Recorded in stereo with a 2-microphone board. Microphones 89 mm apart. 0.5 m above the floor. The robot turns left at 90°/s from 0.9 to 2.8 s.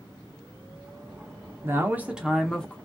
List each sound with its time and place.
1.6 s a man speaking: 25° right (ahead or behind), 0.7 m; by 2.8 s 15° left (ahead or behind), 0.7 m